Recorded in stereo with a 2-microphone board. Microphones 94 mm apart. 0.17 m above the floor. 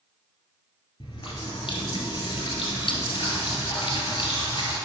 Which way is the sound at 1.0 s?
65° left (ahead or behind).